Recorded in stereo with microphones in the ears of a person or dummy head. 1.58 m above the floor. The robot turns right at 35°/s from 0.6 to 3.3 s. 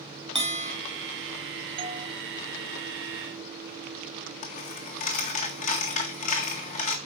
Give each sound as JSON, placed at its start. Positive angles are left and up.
{"t": 0.3, "sound": "a bell", "side_deg": -30, "distance_m": 1.1}
{"t": 1.8, "sound": "a doorbell", "side_deg": -30, "distance_m": 0.6}
{"t": 4.4, "sound": "a dropped coin", "side_deg": 40, "distance_m": 1.6}